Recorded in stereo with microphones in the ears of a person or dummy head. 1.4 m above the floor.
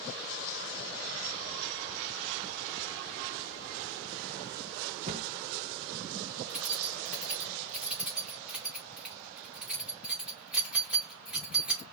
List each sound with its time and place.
5.1 s a cupboard door: 35° right (ahead or behind), 1.3 m
6.5 s keys jangling: 5° right (ahead or behind), 2 m